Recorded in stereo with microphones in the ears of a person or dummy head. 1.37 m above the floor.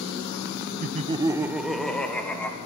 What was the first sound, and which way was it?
Laughter, 40° right (ahead or behind).